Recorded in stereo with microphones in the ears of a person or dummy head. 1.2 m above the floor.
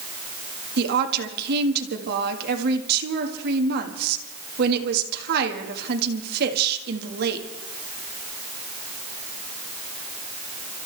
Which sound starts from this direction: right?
A woman speaking, at 0.8 s.